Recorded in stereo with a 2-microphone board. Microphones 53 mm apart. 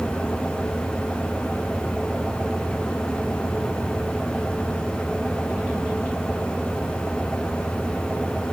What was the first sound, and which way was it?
Only background noise.